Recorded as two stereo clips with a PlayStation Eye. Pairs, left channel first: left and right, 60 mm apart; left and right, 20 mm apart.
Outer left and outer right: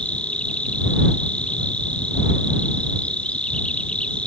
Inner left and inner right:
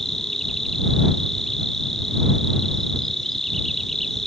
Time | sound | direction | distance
0.0 | an insect | 15° left (ahead or behind) | ?